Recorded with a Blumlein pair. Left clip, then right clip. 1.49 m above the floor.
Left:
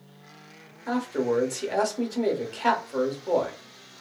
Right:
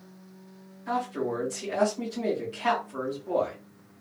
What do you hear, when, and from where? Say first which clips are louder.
0.9 s a man speaking: left 3 dB; 65° left, 1.2 m